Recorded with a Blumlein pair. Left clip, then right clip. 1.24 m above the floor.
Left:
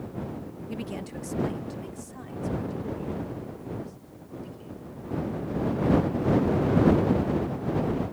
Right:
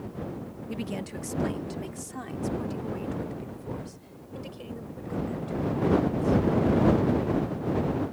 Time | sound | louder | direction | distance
0.7 | a woman speaking | right 1 dB | 5° right | ?